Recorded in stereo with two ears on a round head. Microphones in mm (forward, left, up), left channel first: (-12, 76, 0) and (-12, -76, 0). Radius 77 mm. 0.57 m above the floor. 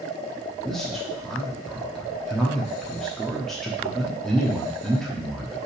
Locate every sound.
0.7 s a man speaking: centre (ahead or behind), 0.9 m